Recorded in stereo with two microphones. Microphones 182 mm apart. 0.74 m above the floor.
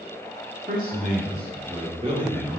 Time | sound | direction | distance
0.7 | a man speaking | 50° right (ahead or behind) | 2.5 m